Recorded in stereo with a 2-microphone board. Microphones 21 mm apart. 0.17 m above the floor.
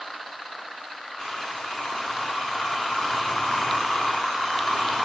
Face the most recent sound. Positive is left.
turn(degrees=60)  # may be behind; listen again after turning